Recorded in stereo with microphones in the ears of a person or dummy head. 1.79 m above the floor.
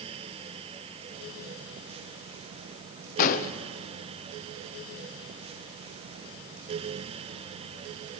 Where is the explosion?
45° left (ahead or behind), 0.8 m.